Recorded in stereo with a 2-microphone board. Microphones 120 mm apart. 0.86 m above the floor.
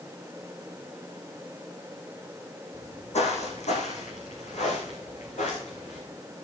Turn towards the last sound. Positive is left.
turn(degrees=80)